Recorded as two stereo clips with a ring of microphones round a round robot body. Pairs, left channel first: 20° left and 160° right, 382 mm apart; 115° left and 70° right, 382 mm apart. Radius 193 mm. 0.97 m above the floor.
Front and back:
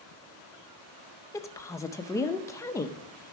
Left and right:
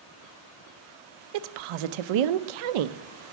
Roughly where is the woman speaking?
Ahead right.